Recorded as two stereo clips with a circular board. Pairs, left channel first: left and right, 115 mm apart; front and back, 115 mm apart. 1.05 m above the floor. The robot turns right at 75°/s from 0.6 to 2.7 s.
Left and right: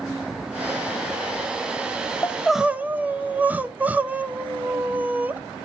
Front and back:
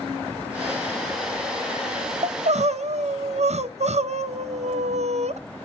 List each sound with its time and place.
2.2 s crying: 160° left, 0.6 m; by 5.4 s 165° right, 0.6 m